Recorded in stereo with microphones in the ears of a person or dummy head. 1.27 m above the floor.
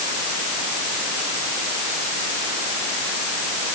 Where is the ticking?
I don't hear ticking.